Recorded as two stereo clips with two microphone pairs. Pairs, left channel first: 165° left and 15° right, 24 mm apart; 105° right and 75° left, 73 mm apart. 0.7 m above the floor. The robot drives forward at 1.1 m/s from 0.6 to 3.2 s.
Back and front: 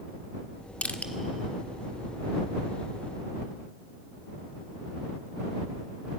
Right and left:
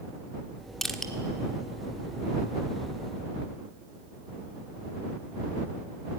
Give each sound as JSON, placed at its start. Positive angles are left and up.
{"t": 0.8, "sound": "crushing", "azimuth_deg": 165, "distance_m": 1.5}